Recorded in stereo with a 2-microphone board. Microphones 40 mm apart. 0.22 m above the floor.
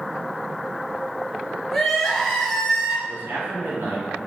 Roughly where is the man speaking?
Right.